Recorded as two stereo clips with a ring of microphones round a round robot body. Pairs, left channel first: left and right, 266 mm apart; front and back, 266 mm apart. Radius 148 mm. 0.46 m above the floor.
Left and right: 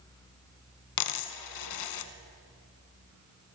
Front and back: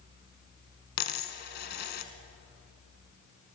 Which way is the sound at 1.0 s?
60° left.